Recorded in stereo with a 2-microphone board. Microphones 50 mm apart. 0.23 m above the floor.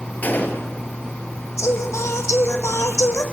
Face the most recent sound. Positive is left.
turn(degrees=75)  # may be behind; listen again after turning